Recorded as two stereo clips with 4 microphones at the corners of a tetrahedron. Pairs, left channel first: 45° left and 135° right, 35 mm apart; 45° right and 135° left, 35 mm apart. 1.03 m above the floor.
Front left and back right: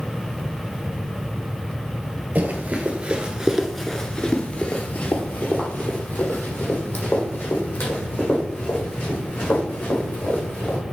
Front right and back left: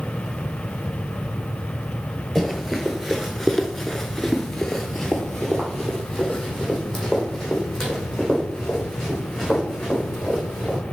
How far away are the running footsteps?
About 1.5 m.